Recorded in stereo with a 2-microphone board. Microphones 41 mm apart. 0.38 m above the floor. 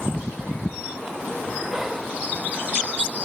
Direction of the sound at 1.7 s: 10° right (ahead or behind).